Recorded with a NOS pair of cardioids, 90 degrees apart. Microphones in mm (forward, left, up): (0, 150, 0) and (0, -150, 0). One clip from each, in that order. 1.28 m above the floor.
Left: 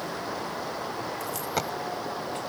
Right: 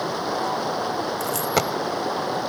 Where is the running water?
55° right.